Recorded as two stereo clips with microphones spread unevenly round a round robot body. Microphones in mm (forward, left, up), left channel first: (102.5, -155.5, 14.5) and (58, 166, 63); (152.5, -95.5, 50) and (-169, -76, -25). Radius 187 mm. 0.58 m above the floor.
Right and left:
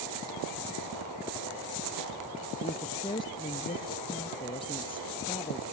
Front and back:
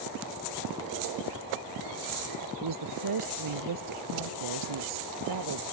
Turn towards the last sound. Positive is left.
turn(degrees=-160)